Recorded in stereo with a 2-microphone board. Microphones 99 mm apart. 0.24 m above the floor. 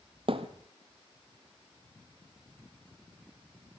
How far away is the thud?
About 1.5 m.